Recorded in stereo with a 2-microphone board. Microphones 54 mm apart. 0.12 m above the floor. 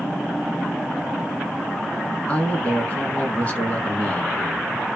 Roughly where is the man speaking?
Left.